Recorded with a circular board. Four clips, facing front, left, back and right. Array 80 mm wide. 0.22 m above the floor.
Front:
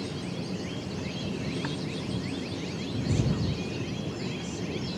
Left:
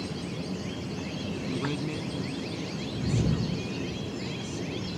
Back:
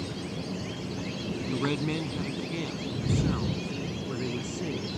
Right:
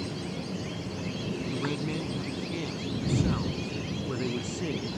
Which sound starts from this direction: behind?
A man speaking, at 1.5 s.